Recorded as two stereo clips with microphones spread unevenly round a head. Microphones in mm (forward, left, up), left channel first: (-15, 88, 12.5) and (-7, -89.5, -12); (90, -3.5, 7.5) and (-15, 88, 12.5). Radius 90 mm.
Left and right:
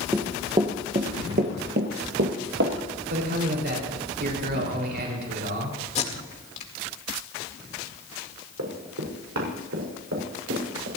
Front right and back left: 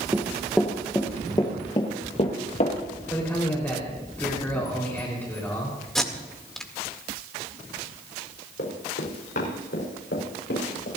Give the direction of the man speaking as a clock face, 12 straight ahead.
4 o'clock.